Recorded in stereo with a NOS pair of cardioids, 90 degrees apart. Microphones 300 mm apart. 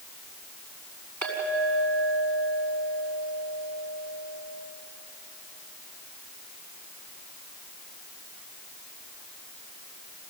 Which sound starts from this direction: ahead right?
A clink, at 1.2 s.